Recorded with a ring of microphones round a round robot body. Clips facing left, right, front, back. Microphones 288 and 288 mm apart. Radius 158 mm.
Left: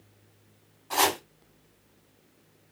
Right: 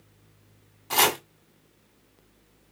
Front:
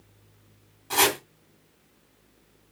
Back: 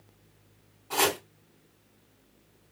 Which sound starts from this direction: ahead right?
Chopping, at 0.9 s.